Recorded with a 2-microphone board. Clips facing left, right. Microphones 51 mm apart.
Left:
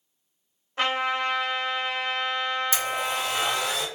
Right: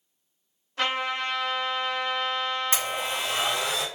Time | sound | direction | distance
0.8 | a trumpet | 25° left (ahead or behind) | 1.4 m
2.7 | a blender | 45° right (ahead or behind) | 1.5 m